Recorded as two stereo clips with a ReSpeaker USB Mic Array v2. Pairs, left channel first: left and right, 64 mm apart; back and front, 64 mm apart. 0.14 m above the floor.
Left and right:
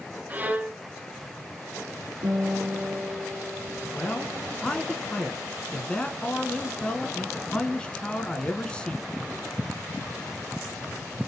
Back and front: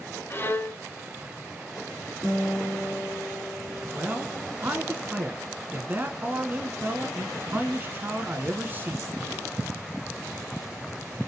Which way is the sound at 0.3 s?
140° right.